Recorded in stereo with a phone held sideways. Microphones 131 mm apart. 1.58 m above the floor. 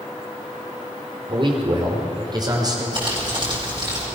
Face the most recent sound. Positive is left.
turn(degrees=-35)  # may be behind; listen again after turning